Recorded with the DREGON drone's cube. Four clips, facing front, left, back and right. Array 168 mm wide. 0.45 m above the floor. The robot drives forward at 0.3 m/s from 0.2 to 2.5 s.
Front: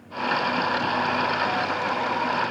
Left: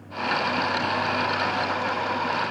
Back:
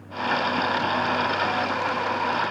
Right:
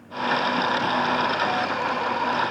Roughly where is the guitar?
No guitar in this recording.